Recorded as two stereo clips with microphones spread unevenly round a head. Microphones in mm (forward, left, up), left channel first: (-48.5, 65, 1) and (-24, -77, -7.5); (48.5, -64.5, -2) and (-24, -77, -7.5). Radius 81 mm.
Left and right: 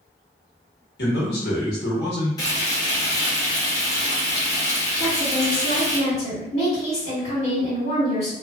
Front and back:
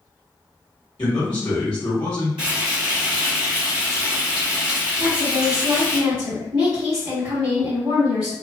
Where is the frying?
165° left, 1.0 m.